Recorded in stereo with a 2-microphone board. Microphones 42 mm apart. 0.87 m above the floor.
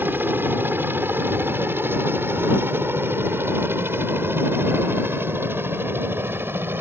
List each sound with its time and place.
0.0 s a helicopter: 55° right (ahead or behind); by 6.8 s 65° right (ahead or behind)